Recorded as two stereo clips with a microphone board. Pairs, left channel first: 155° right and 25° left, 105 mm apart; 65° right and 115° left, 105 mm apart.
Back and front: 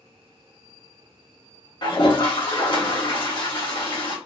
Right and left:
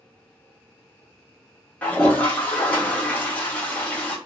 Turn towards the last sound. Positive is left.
turn(degrees=-140)